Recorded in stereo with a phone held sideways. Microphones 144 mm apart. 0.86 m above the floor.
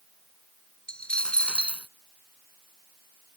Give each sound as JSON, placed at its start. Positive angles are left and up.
{"t": 0.9, "sound": "a dropped coin", "side_deg": 10}